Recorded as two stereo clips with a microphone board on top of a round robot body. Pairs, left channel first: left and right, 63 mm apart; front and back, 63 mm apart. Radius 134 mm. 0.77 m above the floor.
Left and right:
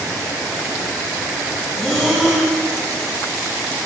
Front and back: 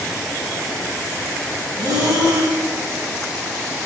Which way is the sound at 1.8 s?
Straight behind.